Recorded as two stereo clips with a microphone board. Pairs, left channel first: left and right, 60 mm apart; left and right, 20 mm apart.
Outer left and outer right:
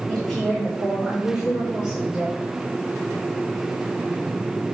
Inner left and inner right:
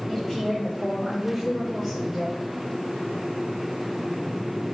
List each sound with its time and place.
0.1 s a woman speaking: 10° left (ahead or behind), 2.5 m; by 2.5 s 15° right (ahead or behind), 4.5 m